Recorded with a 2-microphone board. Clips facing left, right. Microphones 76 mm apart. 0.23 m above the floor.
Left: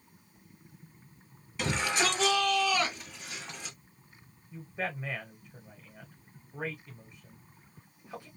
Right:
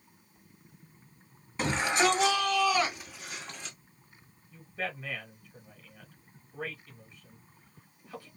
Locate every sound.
1.6 s a shout: 30° right (ahead or behind), 1.5 m; by 3.8 s 5° left (ahead or behind), 1.5 m
4.5 s a man speaking: 20° left (ahead or behind), 1.2 m